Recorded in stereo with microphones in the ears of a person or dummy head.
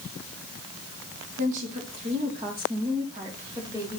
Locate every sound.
1.4 s a woman speaking: 40° right (ahead or behind), 2.5 m; by 4.0 s 15° right (ahead or behind), 3 m